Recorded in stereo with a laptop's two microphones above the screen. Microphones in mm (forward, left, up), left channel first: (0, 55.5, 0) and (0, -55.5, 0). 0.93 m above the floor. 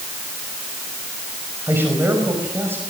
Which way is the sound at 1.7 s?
20° right (ahead or behind).